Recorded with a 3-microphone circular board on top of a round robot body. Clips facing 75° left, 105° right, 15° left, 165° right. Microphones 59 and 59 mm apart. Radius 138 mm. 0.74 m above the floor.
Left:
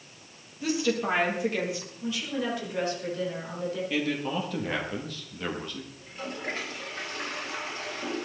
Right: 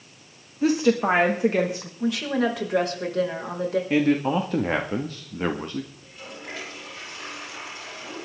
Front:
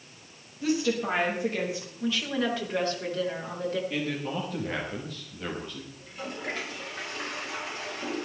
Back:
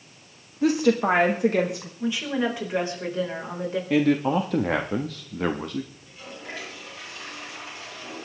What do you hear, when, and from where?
0.6 s a woman speaking: 145° right, 1.6 m
2.0 s a woman speaking: 95° right, 4.5 m
3.9 s a man speaking: 155° right, 1.4 m
6.0 s a toilet flushing: 30° left, 7 m